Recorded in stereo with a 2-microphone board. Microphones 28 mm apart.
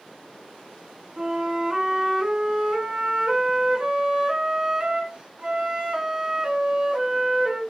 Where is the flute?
35° right (ahead or behind), 0.5 m.